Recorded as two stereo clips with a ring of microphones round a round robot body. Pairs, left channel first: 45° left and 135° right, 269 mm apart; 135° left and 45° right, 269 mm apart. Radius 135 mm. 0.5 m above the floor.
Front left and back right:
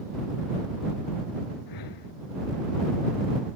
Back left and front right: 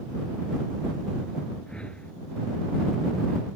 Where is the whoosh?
50° left.